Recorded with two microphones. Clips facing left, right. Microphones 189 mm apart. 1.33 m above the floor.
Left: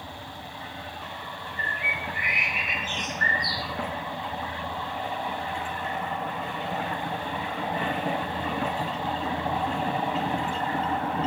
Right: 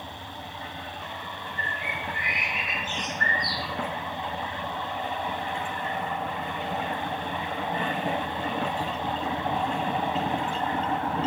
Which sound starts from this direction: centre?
A bird, at 1.6 s.